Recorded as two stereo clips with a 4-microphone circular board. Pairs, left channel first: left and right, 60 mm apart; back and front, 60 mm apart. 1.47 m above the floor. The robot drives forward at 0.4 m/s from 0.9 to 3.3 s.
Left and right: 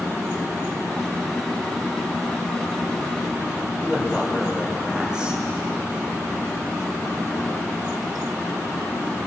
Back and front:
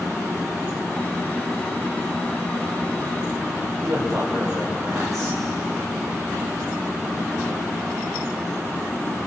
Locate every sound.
3.8 s a man speaking: 15° right, 7 m